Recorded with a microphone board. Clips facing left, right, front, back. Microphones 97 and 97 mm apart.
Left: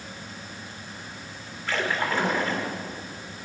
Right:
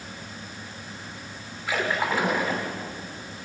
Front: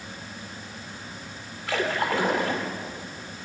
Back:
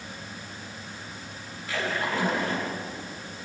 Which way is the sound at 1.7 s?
10° right.